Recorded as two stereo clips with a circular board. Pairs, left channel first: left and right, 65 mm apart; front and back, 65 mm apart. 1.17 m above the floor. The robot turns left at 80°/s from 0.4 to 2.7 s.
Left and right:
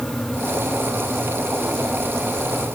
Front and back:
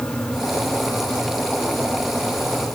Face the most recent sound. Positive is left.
No sound to turn to.